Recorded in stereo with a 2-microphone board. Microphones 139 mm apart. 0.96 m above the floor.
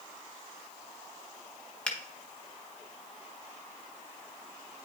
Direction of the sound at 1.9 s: 5° left (ahead or behind).